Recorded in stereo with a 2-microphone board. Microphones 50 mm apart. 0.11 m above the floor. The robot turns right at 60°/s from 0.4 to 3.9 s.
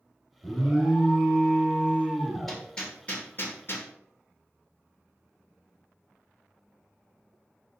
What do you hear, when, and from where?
0.4 s an alarm: centre (ahead or behind), 1.1 m; by 2.6 s 20° right (ahead or behind), 1.1 m
2.5 s hammering: centre (ahead or behind), 1.3 m; by 3.9 s 50° left (ahead or behind), 1.3 m